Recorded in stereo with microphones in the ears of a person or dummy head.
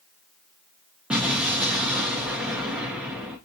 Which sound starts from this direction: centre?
An explosion, at 1.1 s.